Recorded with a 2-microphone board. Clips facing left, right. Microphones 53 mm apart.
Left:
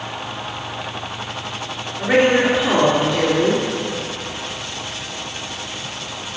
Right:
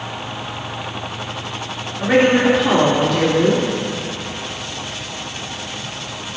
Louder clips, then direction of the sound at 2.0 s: Right 1 dB; centre (ahead or behind).